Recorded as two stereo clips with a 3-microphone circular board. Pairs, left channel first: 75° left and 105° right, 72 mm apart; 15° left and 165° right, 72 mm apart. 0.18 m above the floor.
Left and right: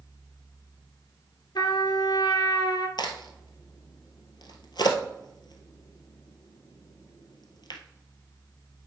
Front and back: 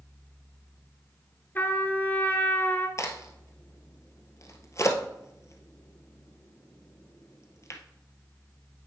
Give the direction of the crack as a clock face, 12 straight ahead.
10 o'clock.